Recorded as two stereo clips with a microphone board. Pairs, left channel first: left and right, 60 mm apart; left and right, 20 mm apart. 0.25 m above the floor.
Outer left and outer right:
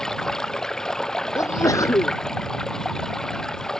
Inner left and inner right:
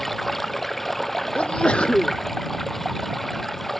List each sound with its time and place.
0.0 s running water: 10° left (ahead or behind)
1.4 s a sneeze: 60° left (ahead or behind)